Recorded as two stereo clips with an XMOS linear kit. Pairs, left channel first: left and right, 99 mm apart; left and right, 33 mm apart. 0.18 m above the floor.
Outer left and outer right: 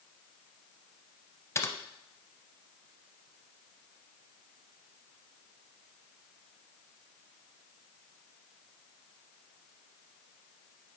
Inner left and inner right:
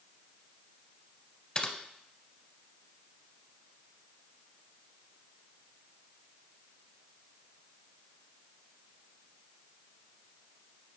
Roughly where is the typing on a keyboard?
Left.